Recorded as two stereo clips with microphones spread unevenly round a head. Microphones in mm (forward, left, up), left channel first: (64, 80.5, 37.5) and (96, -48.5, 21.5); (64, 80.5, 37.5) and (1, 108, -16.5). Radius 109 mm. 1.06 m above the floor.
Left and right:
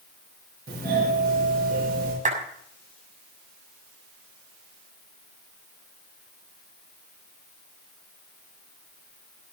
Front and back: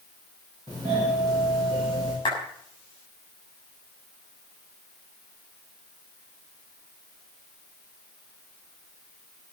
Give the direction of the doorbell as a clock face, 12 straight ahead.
3 o'clock.